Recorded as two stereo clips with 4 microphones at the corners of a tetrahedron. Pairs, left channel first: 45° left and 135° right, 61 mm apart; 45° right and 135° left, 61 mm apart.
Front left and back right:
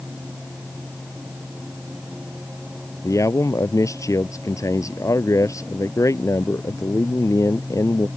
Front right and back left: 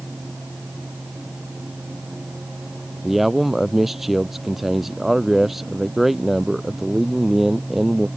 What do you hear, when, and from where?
3.0 s a man speaking: 50° left